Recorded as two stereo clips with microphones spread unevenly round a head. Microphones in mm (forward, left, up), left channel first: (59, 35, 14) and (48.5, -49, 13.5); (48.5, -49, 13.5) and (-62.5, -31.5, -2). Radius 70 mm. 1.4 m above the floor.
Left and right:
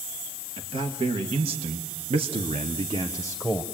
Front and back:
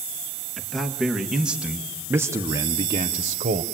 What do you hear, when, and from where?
0.6 s a man speaking: 95° right, 2.5 m; by 3.6 s 175° left, 1.0 m